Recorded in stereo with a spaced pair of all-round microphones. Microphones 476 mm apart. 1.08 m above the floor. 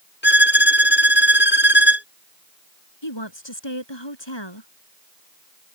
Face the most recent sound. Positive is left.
turn(degrees=70)  # may be behind; listen again after turning